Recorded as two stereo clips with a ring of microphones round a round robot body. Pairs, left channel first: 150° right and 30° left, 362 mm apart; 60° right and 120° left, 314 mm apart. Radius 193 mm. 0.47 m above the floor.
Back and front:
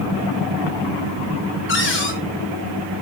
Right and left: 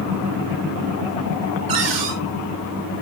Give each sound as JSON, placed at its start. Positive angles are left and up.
{"t": 1.7, "sound": "a cupboard door", "azimuth_deg": 150, "distance_m": 5.5}